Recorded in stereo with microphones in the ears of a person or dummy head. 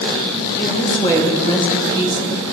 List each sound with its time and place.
0.6 s a woman speaking: 25° left (ahead or behind), 2.5 m